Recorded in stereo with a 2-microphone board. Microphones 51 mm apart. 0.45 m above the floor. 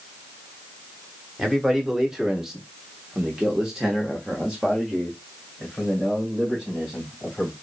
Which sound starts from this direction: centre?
A man speaking, at 1.4 s.